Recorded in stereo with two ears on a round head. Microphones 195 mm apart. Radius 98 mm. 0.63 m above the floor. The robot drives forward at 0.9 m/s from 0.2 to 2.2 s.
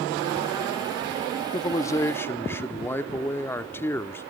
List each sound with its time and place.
1.5 s a man speaking: 20° left (ahead or behind), 0.6 m; by 4.2 s 10° left (ahead or behind), 1.0 m